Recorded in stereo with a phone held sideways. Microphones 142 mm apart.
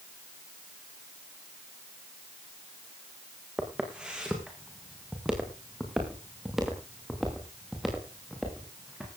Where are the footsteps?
5° right (ahead or behind), 5 m; by 9.1 s centre (ahead or behind), 8 m.